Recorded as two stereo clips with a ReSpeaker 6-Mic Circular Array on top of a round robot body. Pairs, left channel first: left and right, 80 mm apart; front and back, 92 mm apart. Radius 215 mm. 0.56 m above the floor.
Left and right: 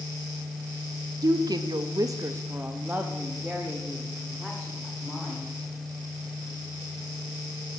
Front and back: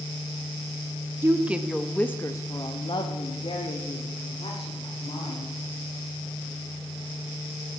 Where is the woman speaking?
120° right, 0.9 m; by 5.5 s 5° left, 2.5 m.